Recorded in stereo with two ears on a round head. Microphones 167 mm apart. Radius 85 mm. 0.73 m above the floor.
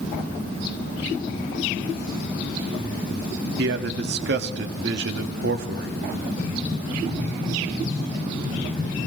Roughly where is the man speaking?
Right.